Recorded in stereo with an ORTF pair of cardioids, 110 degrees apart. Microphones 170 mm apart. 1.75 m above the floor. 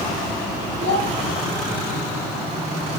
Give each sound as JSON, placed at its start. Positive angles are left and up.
{"t": 0.8, "sound": "a child speaking", "azimuth_deg": -50, "distance_m": 4.0}